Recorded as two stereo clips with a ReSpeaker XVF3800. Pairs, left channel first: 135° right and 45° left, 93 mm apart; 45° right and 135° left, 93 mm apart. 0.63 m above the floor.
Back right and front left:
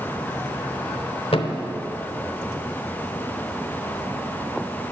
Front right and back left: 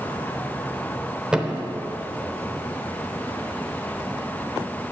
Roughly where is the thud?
Behind right.